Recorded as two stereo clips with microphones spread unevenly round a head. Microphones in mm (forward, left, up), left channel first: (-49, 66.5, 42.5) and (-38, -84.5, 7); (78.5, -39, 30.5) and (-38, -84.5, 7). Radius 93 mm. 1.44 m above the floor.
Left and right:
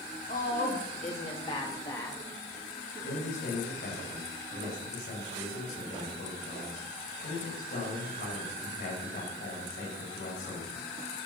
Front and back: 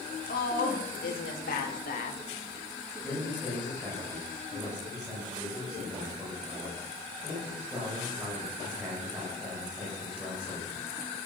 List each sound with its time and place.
0.3 s a woman speaking: 45° left, 4.5 m; by 2.2 s 10° left, 2.5 m
3.0 s a man speaking: 115° left, 8 m